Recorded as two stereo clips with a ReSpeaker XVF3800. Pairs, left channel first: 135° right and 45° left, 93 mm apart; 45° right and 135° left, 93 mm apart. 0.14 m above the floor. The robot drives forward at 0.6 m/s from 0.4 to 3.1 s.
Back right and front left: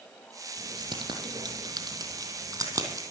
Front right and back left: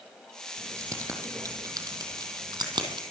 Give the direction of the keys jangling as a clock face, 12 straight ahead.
10 o'clock.